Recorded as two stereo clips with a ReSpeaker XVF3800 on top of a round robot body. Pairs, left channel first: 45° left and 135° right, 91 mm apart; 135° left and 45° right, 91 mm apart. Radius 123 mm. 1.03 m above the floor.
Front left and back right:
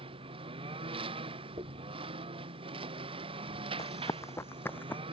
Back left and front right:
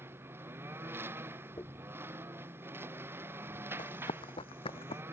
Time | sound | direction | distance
0.0 | a lawn mower | 110° right | ?
1.6 | a dropped coin | 170° right | ?
3.8 | running footsteps | 100° left | ?